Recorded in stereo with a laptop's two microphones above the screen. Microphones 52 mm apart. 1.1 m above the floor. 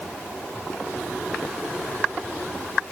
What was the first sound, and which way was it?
Only background noise.